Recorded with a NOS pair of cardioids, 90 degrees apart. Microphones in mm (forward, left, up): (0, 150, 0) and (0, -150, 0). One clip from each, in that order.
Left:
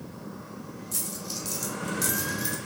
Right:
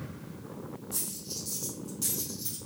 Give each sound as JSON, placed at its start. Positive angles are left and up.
{"t": 0.9, "sound": "a dropped coin", "azimuth_deg": 50, "distance_m": 2.0}